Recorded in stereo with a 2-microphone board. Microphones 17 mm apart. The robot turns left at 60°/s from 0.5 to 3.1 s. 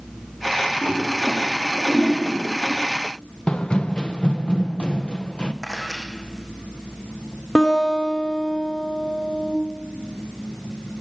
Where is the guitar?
50° left (ahead or behind), 6.5 m.